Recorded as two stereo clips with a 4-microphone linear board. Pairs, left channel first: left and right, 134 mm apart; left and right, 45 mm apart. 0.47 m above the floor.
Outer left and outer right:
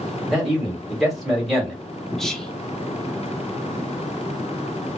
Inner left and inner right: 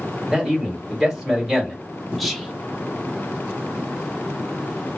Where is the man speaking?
Centre (ahead or behind), 1.5 m.